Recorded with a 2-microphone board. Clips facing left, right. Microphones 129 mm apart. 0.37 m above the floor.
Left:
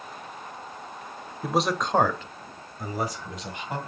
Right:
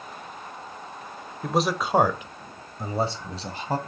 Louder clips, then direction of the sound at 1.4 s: Right 1 dB; 5° left (ahead or behind).